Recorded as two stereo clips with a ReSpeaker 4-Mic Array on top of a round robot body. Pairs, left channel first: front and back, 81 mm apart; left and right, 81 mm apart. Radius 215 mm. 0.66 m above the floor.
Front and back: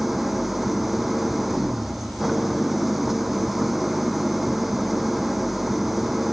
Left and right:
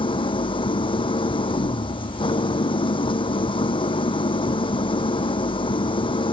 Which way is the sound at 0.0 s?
90° left.